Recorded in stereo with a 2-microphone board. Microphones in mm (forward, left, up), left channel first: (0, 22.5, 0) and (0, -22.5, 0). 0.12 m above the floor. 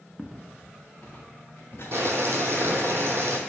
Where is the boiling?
55° right (ahead or behind), 0.7 m.